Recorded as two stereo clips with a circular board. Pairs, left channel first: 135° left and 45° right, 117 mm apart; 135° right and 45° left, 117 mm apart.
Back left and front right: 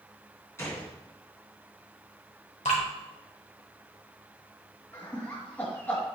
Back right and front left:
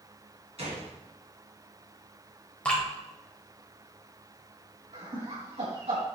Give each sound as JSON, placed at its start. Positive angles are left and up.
{"t": 0.6, "sound": "a gunshot", "azimuth_deg": 70, "distance_m": 2.5}
{"t": 2.6, "sound": "dripping", "azimuth_deg": 145, "distance_m": 2.0}
{"t": 4.9, "sound": "laughter", "azimuth_deg": 65, "distance_m": 2.5}